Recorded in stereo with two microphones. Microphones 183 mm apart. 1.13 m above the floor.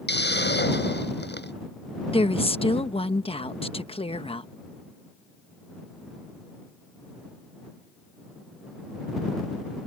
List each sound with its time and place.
0.1 s a hiss: 70° left (ahead or behind)
2.1 s a woman speaking: 30° left (ahead or behind)